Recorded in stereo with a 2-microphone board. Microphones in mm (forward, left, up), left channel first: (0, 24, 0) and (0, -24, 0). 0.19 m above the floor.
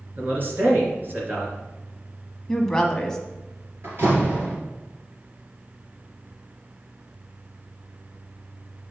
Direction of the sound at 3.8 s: 55° right (ahead or behind).